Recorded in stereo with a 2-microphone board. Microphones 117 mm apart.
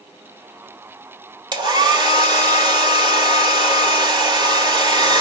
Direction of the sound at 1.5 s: 40° right (ahead or behind).